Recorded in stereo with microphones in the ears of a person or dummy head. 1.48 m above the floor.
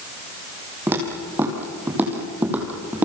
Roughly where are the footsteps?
Centre.